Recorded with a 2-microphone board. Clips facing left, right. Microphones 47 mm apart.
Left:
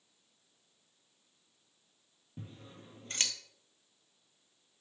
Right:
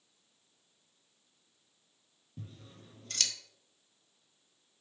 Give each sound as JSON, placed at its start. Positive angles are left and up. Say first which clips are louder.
{"t": 2.4, "sound": "scissors", "louder": "left 1 dB", "side_deg": 30, "distance_m": 0.7}